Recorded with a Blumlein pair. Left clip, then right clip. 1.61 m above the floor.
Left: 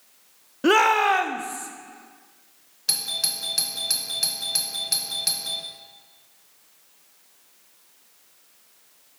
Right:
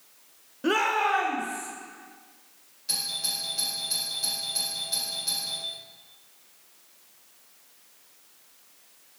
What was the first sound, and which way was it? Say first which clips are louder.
A shout: left 6 dB; 65° left.